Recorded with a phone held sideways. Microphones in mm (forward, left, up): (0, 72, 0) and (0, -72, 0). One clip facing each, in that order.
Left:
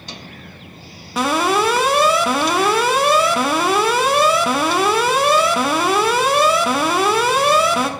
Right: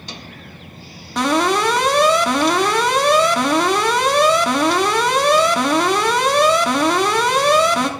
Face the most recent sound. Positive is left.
turn(degrees=5)  # may be behind; listen again after turning